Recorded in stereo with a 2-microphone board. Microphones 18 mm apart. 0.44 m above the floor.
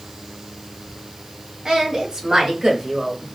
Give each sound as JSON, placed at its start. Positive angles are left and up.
{"t": 1.6, "sound": "a woman speaking", "side_deg": -50, "distance_m": 1.6}